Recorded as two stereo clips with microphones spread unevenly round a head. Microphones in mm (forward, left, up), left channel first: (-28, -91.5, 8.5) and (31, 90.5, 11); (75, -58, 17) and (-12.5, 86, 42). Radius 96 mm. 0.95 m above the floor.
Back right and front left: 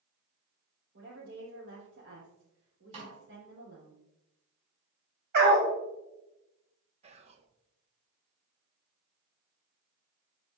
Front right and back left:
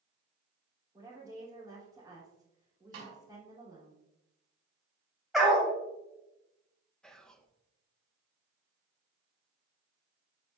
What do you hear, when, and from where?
0.9 s a woman speaking: 45° left, 3.5 m
2.9 s a snare drum: 135° left, 4.5 m
5.3 s a dog barking: 35° left, 2 m
7.0 s whispering: 20° left, 1.0 m